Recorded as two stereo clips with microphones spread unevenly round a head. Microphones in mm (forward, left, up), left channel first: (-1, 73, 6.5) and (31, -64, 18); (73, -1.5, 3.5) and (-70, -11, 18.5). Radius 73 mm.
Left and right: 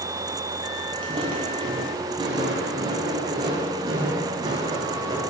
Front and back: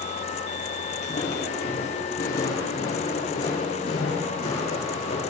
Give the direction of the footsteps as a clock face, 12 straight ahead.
1 o'clock.